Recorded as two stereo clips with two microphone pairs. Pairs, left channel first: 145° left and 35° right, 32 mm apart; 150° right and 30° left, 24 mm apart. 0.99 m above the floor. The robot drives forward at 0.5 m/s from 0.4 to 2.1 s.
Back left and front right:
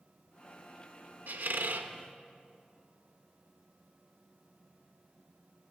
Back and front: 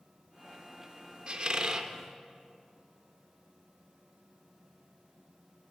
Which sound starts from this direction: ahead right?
A squeak, at 1.3 s.